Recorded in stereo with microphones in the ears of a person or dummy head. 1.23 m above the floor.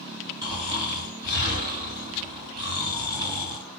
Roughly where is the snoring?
Right.